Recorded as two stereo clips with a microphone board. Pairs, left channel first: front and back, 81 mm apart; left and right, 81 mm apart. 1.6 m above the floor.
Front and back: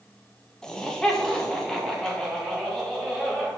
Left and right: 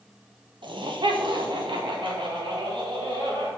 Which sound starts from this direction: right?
Laughter, at 0.6 s.